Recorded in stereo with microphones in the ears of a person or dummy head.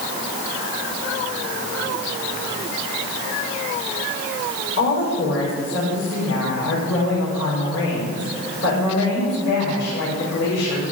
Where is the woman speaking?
70° left (ahead or behind), 5.5 m.